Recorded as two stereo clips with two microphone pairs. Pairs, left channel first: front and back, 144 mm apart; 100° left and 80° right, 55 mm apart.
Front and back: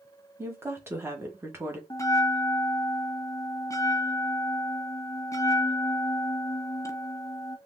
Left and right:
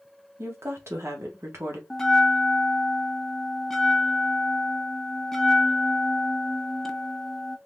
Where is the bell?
30° left, 0.6 m.